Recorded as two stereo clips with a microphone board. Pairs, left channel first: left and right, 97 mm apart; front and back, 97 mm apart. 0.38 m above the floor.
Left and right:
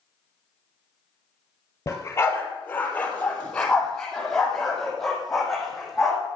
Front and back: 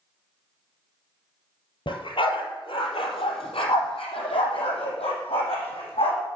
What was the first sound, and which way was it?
A dog barking, 30° left.